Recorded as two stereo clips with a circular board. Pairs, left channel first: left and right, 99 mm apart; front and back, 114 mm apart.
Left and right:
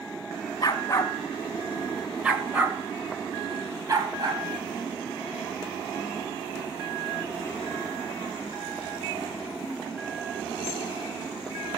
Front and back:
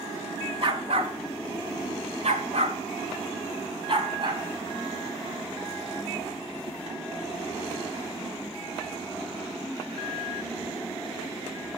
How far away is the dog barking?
About 1.5 m.